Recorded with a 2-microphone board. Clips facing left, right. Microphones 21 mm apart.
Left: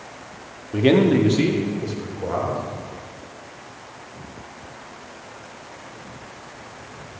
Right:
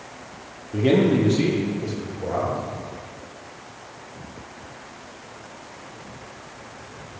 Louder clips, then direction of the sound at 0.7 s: Left 2 dB; 45° left (ahead or behind).